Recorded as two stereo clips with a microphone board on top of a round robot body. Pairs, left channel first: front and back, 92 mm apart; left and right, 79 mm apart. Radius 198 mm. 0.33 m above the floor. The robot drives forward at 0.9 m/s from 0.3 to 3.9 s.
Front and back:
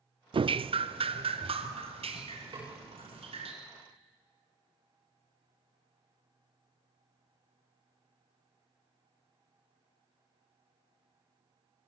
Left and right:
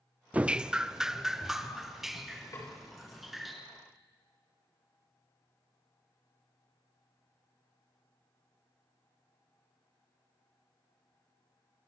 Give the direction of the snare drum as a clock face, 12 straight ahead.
7 o'clock.